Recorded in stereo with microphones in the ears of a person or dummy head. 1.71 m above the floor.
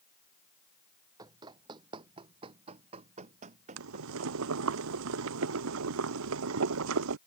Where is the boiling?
80° right.